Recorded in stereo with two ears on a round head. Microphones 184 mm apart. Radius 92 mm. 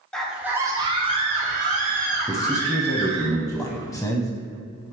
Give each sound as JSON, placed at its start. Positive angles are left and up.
{"t": 0.1, "sound": "a scream", "side_deg": 5, "distance_m": 0.8}
{"t": 2.3, "sound": "a man speaking", "side_deg": 10, "distance_m": 0.6}